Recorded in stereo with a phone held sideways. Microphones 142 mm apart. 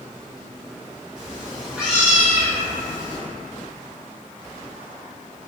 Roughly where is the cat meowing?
Centre.